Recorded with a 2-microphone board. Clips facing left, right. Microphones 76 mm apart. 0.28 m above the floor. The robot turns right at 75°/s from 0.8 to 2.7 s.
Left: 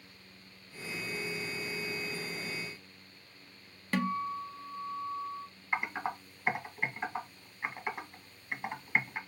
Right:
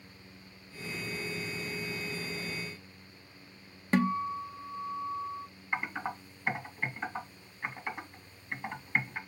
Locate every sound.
3.9 s a guitar: 25° right (ahead or behind), 0.5 m
5.7 s typing on a keyboard: 15° left (ahead or behind), 1.9 m